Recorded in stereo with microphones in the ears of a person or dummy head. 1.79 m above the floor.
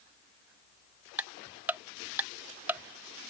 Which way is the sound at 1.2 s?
15° right (ahead or behind).